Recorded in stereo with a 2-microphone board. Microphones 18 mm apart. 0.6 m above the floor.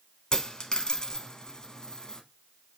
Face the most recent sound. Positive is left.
turn(degrees=40)  # may be behind; listen again after turning